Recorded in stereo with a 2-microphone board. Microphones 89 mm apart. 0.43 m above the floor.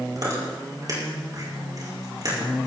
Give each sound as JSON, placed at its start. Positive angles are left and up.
{"t": 0.1, "sound": "chewing", "side_deg": -45, "distance_m": 5.5}